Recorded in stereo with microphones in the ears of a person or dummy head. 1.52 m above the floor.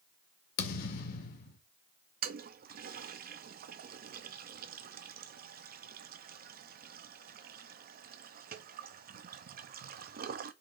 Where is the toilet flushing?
55° right (ahead or behind), 0.6 m.